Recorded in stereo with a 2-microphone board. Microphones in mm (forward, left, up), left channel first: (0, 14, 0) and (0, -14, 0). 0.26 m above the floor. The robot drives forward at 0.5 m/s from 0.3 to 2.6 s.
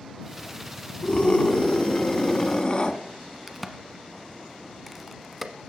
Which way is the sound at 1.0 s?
50° left (ahead or behind).